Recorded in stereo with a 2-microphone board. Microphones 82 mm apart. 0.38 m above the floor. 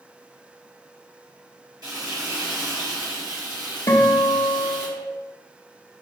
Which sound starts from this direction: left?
A guitar, at 3.9 s.